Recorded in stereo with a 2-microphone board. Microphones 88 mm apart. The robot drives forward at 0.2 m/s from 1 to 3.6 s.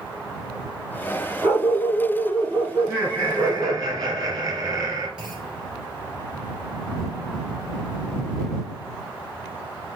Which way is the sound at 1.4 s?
40° right (ahead or behind).